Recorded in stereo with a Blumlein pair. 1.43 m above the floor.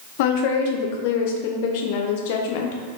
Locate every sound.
0.2 s a woman speaking: 50° left, 0.5 m